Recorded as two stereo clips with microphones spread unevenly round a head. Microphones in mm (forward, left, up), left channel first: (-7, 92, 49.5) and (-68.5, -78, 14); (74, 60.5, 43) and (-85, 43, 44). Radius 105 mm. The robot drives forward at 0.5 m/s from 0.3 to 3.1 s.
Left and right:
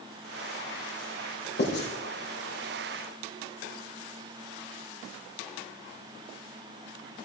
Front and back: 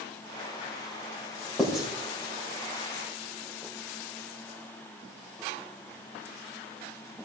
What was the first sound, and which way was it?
Writing, 100° left.